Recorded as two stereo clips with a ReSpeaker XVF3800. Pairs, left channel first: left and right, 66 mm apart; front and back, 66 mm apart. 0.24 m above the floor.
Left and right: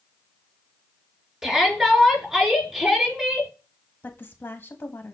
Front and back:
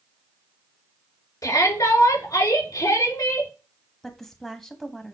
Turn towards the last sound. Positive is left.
turn(degrees=80)